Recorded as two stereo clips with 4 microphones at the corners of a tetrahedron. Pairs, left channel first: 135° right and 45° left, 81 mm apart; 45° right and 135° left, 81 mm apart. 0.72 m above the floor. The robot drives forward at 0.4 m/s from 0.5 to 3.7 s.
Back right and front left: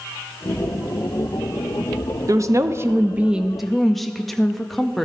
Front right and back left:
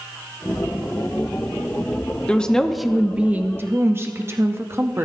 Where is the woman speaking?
25° left, 0.6 m; by 5.0 s 135° left, 0.5 m.